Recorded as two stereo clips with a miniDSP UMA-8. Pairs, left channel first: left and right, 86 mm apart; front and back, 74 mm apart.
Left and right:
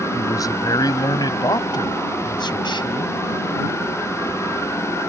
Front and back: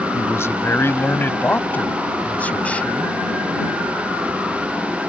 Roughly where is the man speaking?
Ahead left.